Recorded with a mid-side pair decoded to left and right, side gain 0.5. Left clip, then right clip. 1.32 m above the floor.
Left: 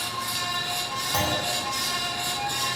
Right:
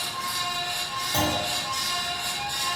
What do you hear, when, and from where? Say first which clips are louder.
0.0 s a fan: even; 45° left, 0.8 m
1.1 s a clunk: even; 10° left, 0.8 m